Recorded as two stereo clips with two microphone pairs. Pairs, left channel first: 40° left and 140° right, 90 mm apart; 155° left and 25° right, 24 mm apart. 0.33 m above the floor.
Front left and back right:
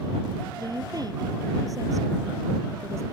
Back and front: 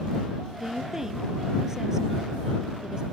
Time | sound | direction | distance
0.6 | a woman speaking | 95° right | ?